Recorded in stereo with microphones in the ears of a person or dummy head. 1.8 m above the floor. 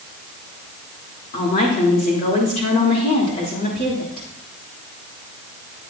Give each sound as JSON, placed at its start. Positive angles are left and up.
{"t": 1.3, "sound": "a woman speaking", "side_deg": 40, "distance_m": 3.0}